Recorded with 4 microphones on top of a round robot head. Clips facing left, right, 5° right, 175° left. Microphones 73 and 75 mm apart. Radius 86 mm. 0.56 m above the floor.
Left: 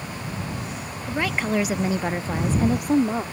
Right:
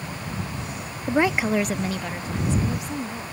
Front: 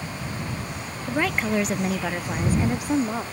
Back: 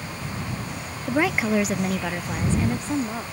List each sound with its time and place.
1.1 s a woman speaking: 120° right; by 3.2 s 70° left